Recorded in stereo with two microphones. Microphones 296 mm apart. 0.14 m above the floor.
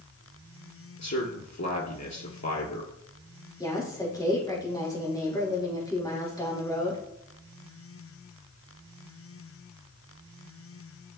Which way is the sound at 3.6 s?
15° left (ahead or behind).